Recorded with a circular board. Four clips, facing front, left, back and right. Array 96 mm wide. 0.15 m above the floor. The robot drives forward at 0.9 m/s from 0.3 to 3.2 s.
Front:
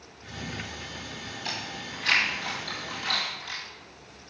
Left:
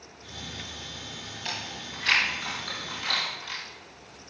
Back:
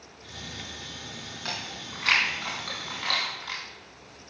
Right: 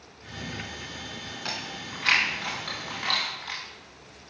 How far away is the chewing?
About 5 m.